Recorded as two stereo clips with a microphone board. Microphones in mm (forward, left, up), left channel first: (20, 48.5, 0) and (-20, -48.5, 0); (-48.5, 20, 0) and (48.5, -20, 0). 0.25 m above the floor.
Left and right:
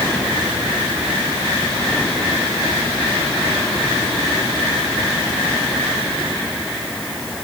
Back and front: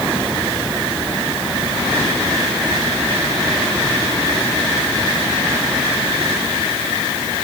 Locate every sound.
Only background noise.